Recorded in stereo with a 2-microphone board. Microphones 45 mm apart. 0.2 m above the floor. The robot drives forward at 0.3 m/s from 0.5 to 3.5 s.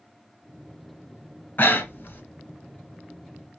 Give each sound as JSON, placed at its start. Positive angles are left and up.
{"t": 1.6, "sound": "breathing", "side_deg": 50, "distance_m": 0.7}